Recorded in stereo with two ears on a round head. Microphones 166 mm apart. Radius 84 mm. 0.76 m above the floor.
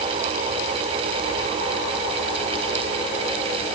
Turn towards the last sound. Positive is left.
No sound to turn to.